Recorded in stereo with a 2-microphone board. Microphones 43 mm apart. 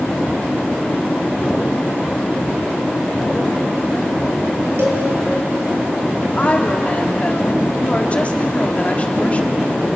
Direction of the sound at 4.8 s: 80° right.